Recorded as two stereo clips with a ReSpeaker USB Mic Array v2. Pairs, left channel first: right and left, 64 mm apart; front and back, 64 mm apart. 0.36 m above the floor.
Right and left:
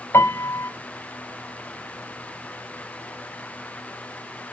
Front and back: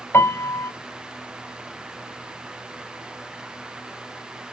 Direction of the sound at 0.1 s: 45° right.